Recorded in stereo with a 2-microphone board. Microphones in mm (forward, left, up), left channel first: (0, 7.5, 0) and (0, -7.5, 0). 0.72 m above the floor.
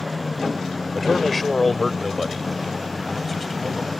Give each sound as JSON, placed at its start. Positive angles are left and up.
{"t": 0.9, "sound": "a man speaking", "side_deg": 20}